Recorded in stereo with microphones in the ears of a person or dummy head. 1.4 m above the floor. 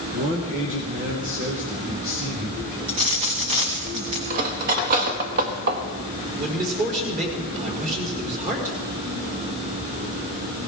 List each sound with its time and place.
0.1 s a man speaking: 40° right (ahead or behind), 1.7 m
2.9 s a dropped coin: 30° right (ahead or behind), 2.0 m
4.3 s cutlery clinking: 45° right (ahead or behind), 1.3 m
6.4 s a man speaking: 40° right (ahead or behind), 4.5 m